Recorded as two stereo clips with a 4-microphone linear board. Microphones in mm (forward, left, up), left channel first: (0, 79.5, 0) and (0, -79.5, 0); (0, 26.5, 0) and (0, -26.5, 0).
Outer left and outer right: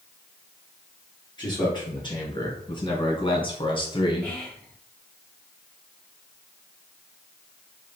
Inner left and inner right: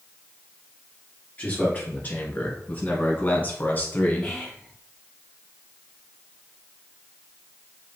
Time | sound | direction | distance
1.4 | a man speaking | 25° left (ahead or behind) | 2.5 m
4.2 | whispering | 20° left (ahead or behind) | 2.5 m